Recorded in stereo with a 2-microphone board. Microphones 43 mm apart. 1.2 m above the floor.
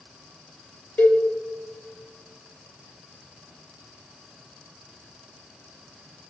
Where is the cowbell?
40° left (ahead or behind), 0.9 m.